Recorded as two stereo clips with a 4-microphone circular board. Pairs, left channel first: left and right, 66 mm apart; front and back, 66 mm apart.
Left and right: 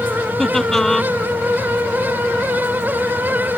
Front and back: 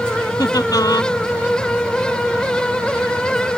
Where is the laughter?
5° left.